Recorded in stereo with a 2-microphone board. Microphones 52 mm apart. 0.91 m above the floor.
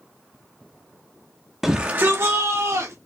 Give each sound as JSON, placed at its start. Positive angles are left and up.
{"t": 1.6, "sound": "a shout", "side_deg": -5, "distance_m": 0.7}